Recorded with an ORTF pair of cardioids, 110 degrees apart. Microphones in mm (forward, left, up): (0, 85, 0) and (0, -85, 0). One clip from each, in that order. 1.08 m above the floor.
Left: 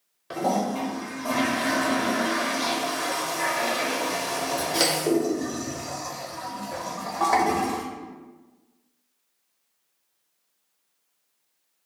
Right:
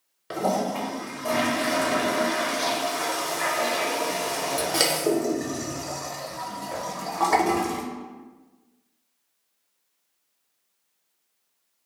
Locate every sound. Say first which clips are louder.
0.3 s a toilet flushing: even; 25° right, 0.7 m